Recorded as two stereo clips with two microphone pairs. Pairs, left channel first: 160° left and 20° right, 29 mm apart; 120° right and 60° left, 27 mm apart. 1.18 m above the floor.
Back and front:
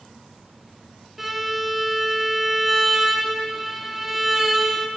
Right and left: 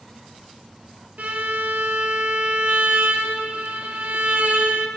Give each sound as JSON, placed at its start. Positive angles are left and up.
{"t": 1.2, "sound": "a violin", "azimuth_deg": 65, "distance_m": 1.2}